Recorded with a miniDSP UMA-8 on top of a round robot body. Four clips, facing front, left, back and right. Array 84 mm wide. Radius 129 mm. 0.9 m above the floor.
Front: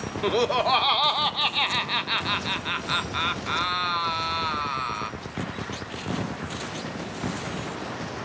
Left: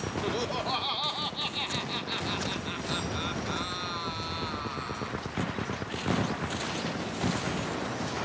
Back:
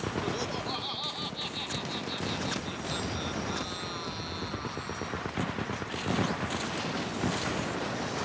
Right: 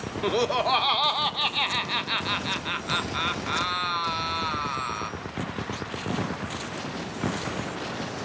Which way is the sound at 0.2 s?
35° right.